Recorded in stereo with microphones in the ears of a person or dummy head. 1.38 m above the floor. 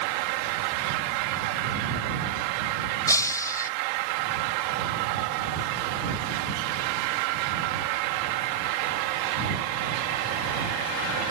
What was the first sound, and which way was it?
Breaking glass, 15° left (ahead or behind).